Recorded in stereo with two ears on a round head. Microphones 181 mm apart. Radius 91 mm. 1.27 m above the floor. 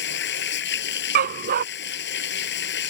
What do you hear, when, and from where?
0.0 s running water: 60° left (ahead or behind)
1.1 s a dog barking: 50° right (ahead or behind)